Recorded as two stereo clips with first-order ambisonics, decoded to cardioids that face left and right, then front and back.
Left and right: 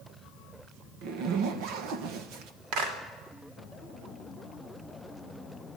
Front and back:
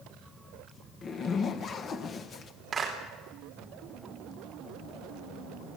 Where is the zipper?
60° right, 1.4 m.